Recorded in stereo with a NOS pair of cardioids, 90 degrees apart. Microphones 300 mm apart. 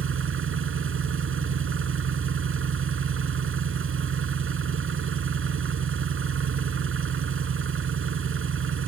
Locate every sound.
0.0 s an engine running: 45° right